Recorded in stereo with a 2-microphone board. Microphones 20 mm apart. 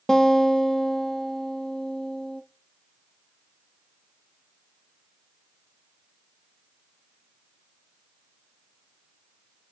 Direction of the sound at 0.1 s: 40° left (ahead or behind).